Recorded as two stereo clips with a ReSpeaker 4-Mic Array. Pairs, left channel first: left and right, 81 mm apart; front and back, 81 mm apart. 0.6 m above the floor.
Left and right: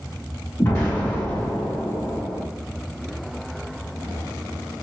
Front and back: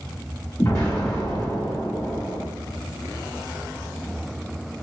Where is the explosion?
45° left, 1.5 m.